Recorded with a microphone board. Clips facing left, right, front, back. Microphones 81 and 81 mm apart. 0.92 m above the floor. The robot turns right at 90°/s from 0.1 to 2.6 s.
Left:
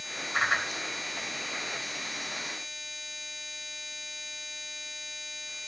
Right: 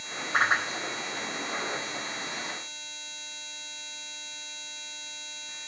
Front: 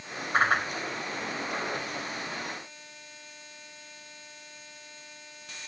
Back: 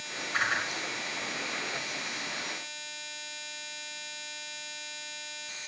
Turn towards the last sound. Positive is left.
turn(degrees=150)